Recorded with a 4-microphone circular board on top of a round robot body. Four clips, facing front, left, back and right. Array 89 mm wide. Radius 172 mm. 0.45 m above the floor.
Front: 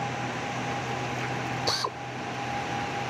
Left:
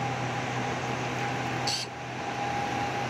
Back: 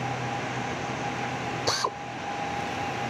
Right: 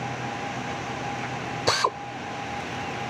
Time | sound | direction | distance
1.7 | a drill | 95° right | ?